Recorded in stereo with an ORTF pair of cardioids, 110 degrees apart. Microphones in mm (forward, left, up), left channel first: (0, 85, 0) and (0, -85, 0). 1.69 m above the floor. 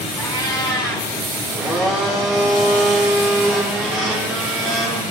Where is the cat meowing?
20° left, 4.5 m.